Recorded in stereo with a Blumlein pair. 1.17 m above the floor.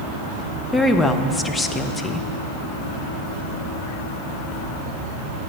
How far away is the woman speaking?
About 0.6 m.